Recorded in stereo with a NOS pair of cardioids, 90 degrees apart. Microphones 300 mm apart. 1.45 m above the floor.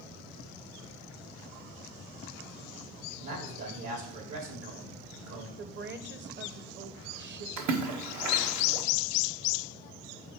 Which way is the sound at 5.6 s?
40° right.